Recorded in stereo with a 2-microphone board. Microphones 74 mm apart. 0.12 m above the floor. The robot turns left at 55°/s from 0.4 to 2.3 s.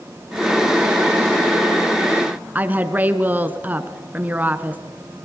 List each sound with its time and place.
2.5 s a woman speaking: 20° right (ahead or behind), 1.1 m